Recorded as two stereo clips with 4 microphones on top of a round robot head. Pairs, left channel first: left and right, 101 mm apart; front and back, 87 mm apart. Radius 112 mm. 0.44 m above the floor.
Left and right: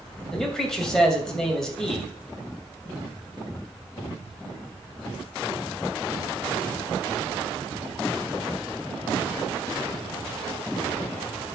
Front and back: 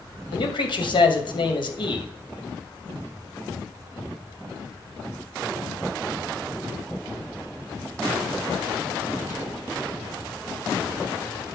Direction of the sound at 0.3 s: 5° left.